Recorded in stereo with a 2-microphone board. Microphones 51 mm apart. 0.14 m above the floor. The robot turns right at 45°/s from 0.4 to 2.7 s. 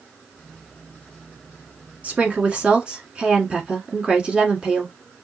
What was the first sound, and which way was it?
A woman speaking, 30° right (ahead or behind).